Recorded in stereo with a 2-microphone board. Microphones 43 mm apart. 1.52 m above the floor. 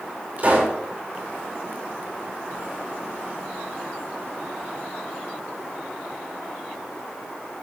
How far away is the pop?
About 6 m.